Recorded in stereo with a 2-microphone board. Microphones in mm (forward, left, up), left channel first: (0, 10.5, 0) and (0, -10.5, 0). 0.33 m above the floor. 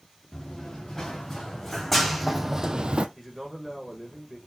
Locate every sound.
0.3 s running footsteps: 25° left (ahead or behind), 3 m; by 3.1 s 65° right (ahead or behind), 0.6 m
3.2 s a man speaking: 15° right (ahead or behind), 1.4 m